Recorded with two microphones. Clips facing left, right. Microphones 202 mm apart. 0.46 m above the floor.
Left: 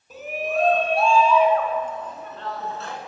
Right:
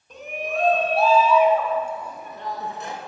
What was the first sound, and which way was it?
A shout, 5° left (ahead or behind).